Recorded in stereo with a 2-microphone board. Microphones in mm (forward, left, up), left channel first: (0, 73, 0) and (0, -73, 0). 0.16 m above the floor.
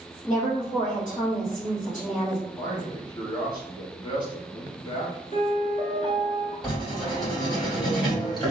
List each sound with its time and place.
0.2 s a woman speaking: 55° left (ahead or behind), 1.9 m
2.6 s a man speaking: 25° left (ahead or behind), 1.1 m
5.3 s a piano: 50° left (ahead or behind), 0.9 m
6.6 s writing: 25° left (ahead or behind), 2.0 m